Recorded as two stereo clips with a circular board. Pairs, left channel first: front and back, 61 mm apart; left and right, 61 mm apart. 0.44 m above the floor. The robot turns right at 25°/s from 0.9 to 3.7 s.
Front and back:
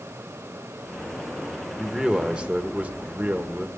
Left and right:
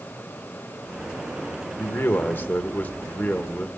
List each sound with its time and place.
1.8 s a man speaking: 105° left, 1.1 m; by 3.7 s 155° left, 1.1 m